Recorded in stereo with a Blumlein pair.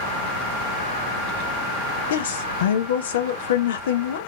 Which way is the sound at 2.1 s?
60° left.